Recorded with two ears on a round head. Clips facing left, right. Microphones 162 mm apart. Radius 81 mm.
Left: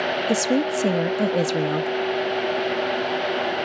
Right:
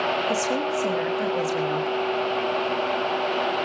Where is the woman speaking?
45° left (ahead or behind), 1.2 m.